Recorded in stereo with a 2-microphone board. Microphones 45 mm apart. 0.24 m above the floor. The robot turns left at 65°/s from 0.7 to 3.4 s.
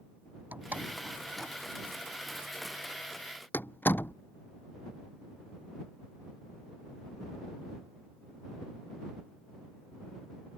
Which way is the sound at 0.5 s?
40° right (ahead or behind).